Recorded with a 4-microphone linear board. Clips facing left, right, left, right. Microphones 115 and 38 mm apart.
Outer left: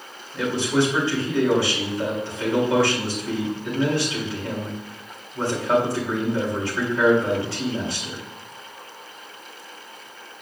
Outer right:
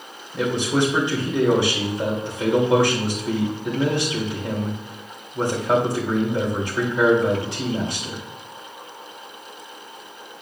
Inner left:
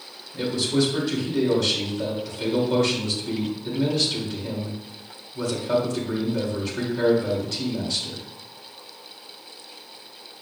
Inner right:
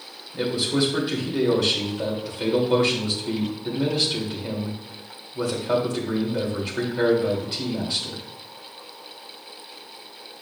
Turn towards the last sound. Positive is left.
turn(degrees=-20)  # may be behind; listen again after turning